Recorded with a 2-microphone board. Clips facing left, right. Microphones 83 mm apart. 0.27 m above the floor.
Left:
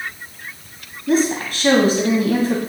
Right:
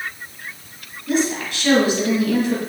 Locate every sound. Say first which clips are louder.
1.1 s a woman speaking: left 3 dB; 45° left (ahead or behind), 1.8 m